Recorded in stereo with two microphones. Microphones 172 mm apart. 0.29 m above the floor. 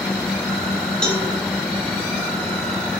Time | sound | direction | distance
1.0 | a cowbell | 5° left (ahead or behind) | 0.8 m